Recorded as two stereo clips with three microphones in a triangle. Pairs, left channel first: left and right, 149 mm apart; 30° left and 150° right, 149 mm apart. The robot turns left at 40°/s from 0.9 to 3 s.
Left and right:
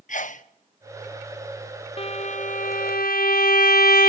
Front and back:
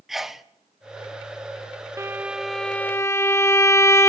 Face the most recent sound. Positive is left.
turn(degrees=100)